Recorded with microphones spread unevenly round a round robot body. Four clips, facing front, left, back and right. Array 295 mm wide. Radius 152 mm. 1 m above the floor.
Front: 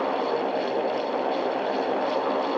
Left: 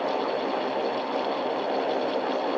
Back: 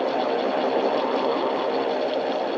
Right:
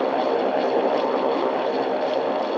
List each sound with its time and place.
Only background noise.